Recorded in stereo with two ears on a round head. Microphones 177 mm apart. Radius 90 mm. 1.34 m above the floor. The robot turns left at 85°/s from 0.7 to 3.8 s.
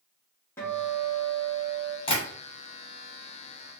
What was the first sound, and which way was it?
A guitar, 165° left.